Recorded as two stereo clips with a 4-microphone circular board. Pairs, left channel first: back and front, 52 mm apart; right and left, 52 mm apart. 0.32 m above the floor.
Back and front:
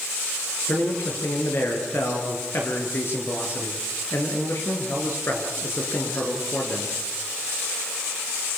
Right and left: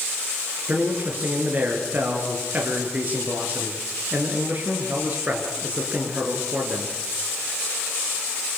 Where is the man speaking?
145° left, 6.5 m.